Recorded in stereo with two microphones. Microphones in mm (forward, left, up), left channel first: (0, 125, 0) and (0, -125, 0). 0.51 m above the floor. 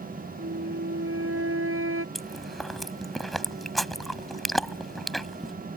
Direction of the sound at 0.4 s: 60° right (ahead or behind).